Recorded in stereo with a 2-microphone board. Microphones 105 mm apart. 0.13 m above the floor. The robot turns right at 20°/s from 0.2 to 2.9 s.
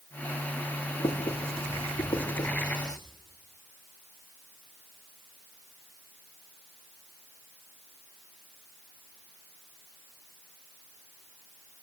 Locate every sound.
1.0 s writing: 75° left (ahead or behind), 6 m; by 3.0 s 40° left (ahead or behind), 6 m